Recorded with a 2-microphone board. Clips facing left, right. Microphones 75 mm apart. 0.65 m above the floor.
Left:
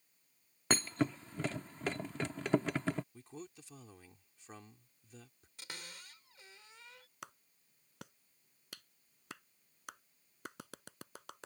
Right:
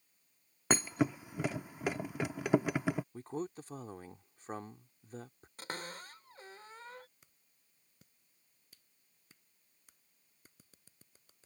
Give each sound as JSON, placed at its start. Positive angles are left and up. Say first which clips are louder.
{"t": 0.7, "sound": "a thud", "louder": "right 2 dB", "side_deg": -10}
{"t": 3.1, "sound": "a man speaking", "louder": "right 10 dB", "side_deg": -45}
{"t": 5.6, "sound": "a cupboard door", "louder": "right 8 dB", "side_deg": -45}
{"t": 7.2, "sound": "a clap", "louder": "left 21 dB", "side_deg": 80}